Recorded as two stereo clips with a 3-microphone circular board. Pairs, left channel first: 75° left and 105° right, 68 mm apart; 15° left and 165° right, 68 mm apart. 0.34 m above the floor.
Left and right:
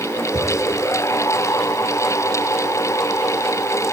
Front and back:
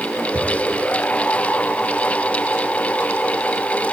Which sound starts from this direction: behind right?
A cupboard door, at 0.3 s.